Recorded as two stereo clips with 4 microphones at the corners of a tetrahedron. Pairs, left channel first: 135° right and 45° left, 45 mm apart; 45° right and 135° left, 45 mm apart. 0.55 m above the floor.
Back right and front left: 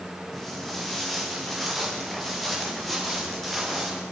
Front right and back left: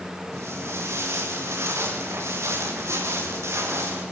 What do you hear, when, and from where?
0.3 s footsteps: 140° left, 5 m; by 4.0 s 135° left, 7.5 m